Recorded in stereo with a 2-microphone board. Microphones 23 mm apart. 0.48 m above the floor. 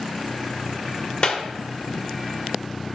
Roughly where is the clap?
Left.